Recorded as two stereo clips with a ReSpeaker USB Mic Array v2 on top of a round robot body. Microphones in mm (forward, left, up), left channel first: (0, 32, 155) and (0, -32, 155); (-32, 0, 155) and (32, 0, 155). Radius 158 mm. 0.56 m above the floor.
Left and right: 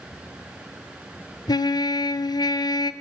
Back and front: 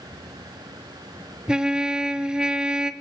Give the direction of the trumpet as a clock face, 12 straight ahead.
9 o'clock.